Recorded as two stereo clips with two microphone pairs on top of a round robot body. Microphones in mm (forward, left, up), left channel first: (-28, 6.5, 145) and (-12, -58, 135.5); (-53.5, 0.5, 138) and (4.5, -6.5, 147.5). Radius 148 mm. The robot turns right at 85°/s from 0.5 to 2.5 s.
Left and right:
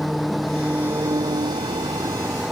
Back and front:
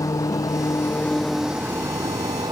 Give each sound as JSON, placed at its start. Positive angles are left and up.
{"t": 0.0, "sound": "an engine running", "azimuth_deg": -165}